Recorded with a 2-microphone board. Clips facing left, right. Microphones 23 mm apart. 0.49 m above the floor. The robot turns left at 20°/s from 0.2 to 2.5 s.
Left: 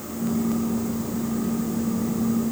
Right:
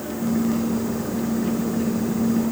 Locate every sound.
Only background noise.